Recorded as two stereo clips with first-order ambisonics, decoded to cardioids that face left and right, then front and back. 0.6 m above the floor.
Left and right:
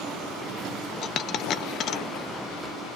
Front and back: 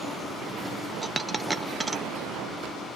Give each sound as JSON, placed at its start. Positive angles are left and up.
{"t": 1.0, "sound": "a dropped coin", "azimuth_deg": 100, "distance_m": 0.6}